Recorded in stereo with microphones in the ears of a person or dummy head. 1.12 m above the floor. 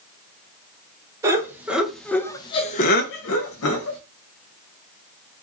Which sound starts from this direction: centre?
Laughter, at 1.2 s.